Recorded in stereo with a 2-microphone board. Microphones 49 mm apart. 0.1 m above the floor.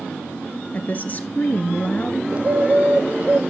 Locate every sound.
0.7 s a woman speaking: 35° left (ahead or behind), 1.3 m
2.3 s a bird: 30° right (ahead or behind), 1.0 m